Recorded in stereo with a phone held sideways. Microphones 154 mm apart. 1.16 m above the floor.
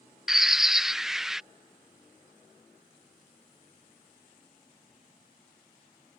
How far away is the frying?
I don't hear frying.